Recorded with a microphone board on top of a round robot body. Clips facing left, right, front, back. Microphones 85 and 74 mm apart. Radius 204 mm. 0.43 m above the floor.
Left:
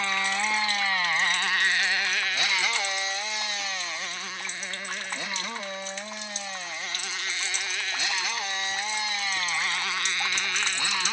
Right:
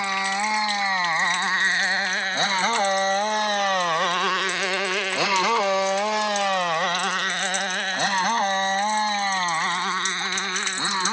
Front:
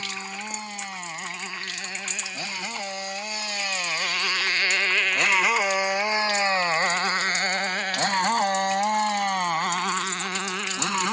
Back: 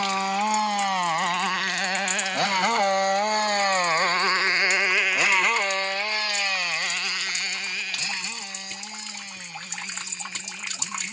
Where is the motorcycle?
165° right; by 11.1 s 25° right.